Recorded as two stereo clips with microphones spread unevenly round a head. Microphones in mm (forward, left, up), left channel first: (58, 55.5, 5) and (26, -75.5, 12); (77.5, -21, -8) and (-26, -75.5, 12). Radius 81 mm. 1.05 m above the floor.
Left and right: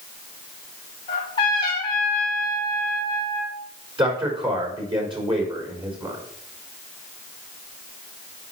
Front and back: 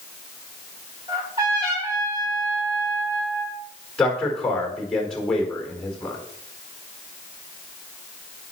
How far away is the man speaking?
About 4.5 m.